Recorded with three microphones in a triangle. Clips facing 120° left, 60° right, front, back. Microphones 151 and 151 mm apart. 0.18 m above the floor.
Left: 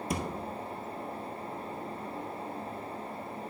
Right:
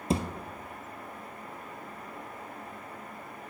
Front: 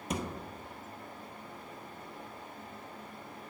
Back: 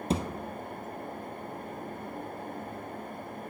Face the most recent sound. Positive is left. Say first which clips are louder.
# right 5 dB, back 6 dB
turn(degrees=-125)